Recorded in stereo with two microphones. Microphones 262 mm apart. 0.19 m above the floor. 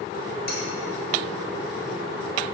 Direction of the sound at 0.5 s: 50° left (ahead or behind).